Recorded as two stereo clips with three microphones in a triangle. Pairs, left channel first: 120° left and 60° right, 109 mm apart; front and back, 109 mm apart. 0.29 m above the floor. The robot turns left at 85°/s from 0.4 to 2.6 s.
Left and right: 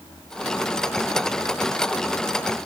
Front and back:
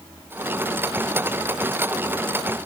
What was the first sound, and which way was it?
Only background noise.